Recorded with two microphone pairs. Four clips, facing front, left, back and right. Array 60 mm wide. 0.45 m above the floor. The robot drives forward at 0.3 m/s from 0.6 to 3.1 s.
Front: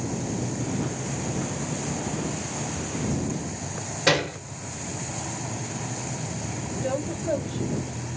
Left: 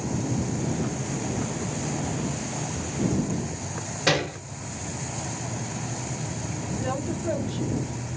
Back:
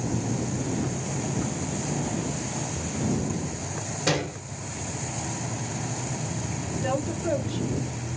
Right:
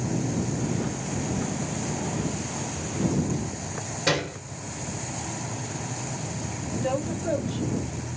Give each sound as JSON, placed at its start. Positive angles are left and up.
{"t": 4.1, "sound": "a gunshot", "azimuth_deg": 45, "distance_m": 0.6}
{"t": 6.8, "sound": "a woman speaking", "azimuth_deg": 165, "distance_m": 1.7}